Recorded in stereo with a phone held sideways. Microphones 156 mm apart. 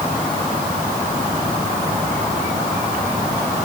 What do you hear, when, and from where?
Only background noise.